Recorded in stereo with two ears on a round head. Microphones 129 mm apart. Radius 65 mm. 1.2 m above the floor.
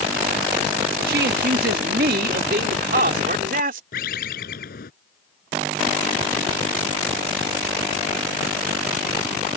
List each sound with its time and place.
1.1 s a man speaking: 70° right (ahead or behind); by 3.8 s 60° right (ahead or behind)
3.9 s a bird: 70° left (ahead or behind)